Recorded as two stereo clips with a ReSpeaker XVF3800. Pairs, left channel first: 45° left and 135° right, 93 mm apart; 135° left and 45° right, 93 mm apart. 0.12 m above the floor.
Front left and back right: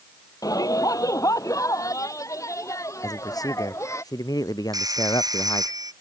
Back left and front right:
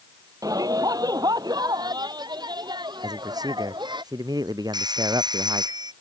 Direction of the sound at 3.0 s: Straight ahead.